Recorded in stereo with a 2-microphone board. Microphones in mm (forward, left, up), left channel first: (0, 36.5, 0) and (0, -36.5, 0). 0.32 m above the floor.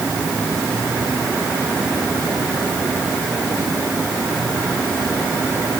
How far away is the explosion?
I don't hear an explosion.